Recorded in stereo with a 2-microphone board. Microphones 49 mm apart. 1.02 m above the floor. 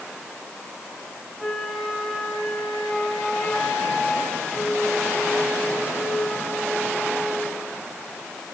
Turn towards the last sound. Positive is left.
turn(degrees=0)  # may be behind; listen again after turning